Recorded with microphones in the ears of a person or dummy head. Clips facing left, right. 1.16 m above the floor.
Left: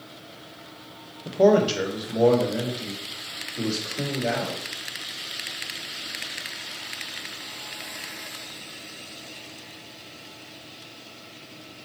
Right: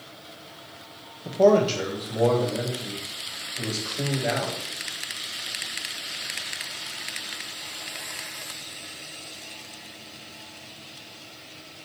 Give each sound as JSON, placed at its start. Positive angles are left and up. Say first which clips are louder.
{"t": 1.2, "sound": "a man speaking", "louder": "even", "side_deg": 5, "distance_m": 0.7}